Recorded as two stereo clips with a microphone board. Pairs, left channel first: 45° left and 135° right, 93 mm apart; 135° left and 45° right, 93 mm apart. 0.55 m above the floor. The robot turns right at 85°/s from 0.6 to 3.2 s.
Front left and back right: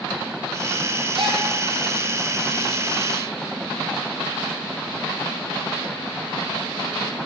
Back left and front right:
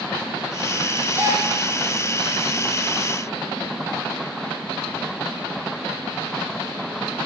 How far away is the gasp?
About 9 m.